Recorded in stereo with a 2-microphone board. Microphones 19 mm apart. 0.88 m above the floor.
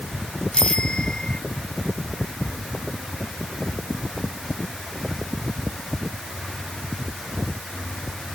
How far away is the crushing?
No crushing in this recording.